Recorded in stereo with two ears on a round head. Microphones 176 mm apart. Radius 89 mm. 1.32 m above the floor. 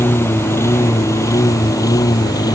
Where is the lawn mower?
15° left (ahead or behind); by 2.6 s 20° left (ahead or behind).